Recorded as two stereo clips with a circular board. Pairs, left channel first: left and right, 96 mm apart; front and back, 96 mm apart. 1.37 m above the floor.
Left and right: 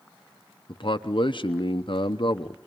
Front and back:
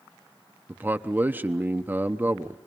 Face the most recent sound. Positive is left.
turn(degrees=110)